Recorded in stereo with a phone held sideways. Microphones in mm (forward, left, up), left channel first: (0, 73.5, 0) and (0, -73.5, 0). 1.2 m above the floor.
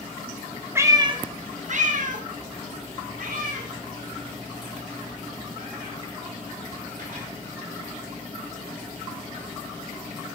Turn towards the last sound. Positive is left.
turn(degrees=-60)  # may be behind; listen again after turning